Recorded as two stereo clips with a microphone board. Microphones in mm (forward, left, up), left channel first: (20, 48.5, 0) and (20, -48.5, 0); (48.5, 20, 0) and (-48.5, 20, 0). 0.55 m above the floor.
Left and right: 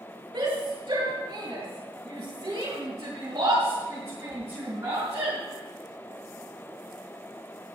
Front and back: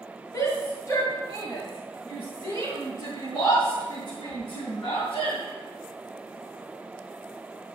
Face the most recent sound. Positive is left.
turn(degrees=-30)